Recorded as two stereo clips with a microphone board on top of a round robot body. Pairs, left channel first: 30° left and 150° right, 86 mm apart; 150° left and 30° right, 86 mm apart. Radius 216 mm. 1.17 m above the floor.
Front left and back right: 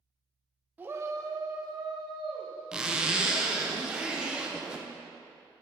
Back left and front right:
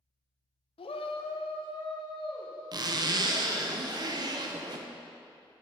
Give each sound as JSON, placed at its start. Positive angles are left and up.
{"t": 0.8, "sound": "a shout", "azimuth_deg": 135, "distance_m": 0.5}
{"t": 2.7, "sound": "a zipper", "azimuth_deg": -70, "distance_m": 0.7}